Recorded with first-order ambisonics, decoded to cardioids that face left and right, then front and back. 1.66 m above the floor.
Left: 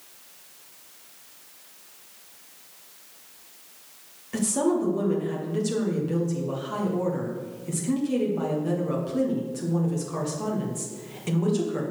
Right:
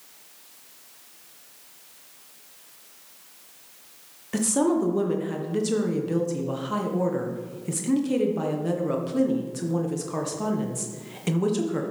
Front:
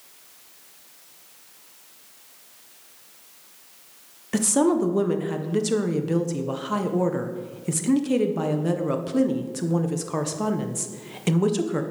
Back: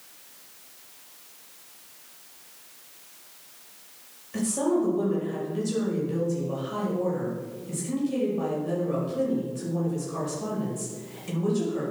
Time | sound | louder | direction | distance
4.3 | a woman speaking | right 1 dB, front 5 dB | 15° right | 1.4 m